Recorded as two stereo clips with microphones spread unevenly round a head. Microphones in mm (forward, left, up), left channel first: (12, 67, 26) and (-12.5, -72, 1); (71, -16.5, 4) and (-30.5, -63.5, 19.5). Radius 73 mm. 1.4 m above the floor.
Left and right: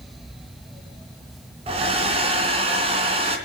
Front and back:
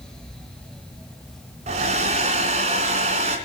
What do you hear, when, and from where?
1.7 s a hair dryer: 155° right, 3 m